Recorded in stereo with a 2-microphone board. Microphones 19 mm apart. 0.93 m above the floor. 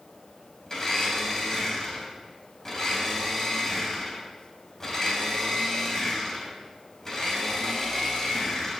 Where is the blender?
25° left (ahead or behind), 3.5 m.